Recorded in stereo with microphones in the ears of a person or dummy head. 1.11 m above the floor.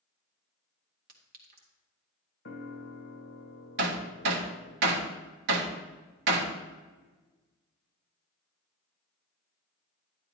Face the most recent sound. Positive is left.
turn(degrees=-60)  # may be behind; listen again after turning